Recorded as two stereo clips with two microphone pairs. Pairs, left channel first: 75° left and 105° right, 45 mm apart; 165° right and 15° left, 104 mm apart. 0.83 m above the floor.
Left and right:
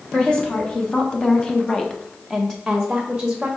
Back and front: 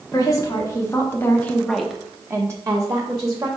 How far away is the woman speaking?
About 1.3 m.